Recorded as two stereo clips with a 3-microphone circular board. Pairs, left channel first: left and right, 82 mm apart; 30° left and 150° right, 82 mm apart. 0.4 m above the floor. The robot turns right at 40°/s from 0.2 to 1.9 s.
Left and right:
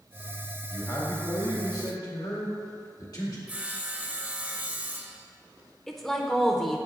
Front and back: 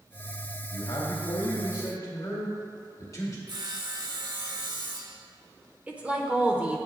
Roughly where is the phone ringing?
No phone ringing in this recording.